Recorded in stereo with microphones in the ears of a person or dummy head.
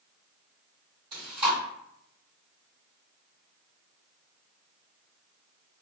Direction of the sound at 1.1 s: 30° right (ahead or behind).